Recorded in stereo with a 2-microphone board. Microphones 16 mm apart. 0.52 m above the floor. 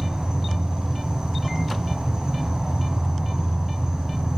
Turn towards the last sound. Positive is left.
turn(degrees=-45)  # may be behind; listen again after turning